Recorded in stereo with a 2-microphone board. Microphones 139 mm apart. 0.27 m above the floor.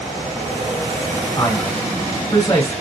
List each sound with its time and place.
1.4 s a man speaking: 20° left (ahead or behind), 1.2 m